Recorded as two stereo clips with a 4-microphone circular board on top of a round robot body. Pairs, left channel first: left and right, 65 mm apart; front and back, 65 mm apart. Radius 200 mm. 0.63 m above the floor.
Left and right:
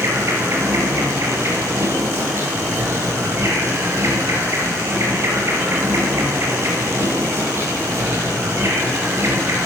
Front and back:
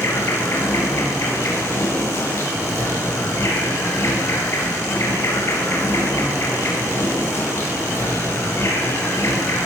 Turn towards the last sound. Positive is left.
turn(degrees=-45)